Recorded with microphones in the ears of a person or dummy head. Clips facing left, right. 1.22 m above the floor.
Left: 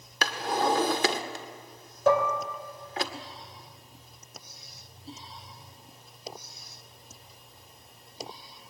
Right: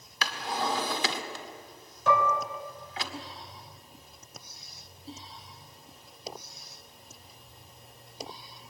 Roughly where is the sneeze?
No sneeze in this recording.